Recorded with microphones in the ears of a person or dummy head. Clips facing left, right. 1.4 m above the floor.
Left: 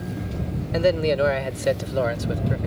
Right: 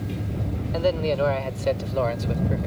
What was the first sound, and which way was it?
A man speaking, 25° left (ahead or behind).